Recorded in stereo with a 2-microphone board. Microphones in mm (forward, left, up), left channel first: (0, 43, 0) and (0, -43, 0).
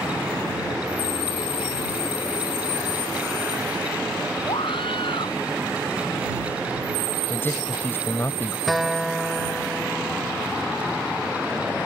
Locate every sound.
4.5 s a scream: 80° left
7.3 s a man speaking: 25° left (ahead or behind)
8.7 s a guitar: centre (ahead or behind)